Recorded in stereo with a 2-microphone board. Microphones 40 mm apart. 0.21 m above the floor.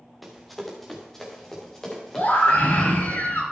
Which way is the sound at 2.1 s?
60° left (ahead or behind).